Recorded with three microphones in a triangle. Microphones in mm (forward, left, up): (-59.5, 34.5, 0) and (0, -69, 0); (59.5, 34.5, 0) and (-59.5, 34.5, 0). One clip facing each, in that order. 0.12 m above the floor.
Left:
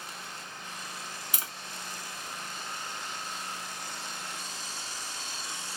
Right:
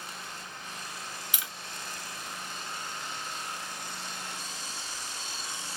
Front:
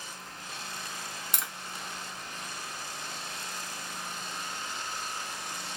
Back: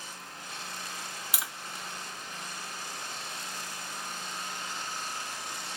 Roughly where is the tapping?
Left.